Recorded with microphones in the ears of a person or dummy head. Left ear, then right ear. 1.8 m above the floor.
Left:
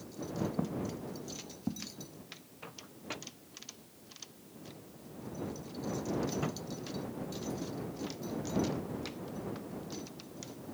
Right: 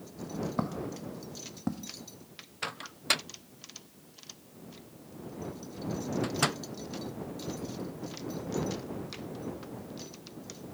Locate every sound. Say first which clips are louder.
0.6 s footsteps: right 3 dB; 65° right (ahead or behind)
2.6 s a microwave: right 16 dB; 60° right (ahead or behind)